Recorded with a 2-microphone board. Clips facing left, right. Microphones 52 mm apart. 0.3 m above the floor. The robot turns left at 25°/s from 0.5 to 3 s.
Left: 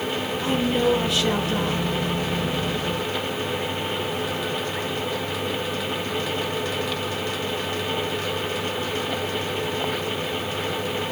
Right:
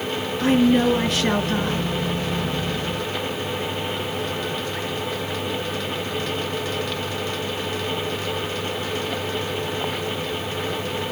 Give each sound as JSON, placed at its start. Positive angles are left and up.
{"t": 0.4, "sound": "a woman speaking", "azimuth_deg": -110, "distance_m": 4.0}